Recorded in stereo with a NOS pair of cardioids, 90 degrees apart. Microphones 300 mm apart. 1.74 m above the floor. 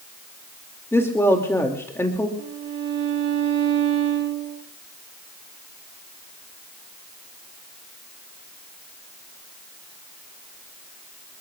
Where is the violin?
60° right, 3.5 m.